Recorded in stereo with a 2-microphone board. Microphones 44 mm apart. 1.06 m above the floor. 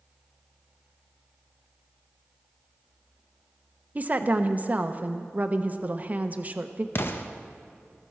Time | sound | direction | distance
4.0 | a woman speaking | 35° right (ahead or behind) | 0.8 m
7.0 | an explosion | 55° left (ahead or behind) | 0.9 m